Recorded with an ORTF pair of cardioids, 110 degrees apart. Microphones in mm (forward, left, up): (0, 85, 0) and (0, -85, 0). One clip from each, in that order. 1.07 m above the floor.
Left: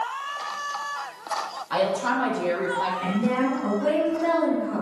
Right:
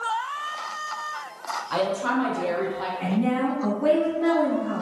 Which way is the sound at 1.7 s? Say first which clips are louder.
Left 2 dB; 5° right.